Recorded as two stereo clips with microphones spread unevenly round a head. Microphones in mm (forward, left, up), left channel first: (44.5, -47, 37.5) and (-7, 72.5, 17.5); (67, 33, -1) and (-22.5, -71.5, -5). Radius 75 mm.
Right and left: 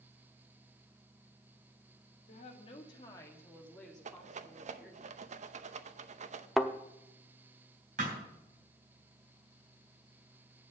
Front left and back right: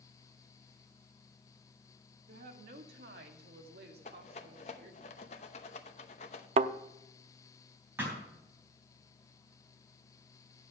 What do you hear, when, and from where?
2.3 s a woman speaking: 110° right, 1.9 m; by 5.0 s 170° right, 3 m
4.0 s a rattle: 100° left, 0.8 m
6.6 s a thud: 150° right, 0.5 m
8.0 s a thud: 150° left, 3.5 m